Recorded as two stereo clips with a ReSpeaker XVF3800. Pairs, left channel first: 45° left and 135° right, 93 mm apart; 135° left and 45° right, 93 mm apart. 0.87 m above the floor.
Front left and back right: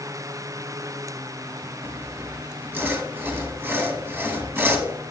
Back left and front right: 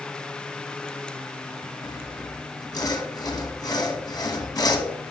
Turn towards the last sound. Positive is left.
turn(degrees=165)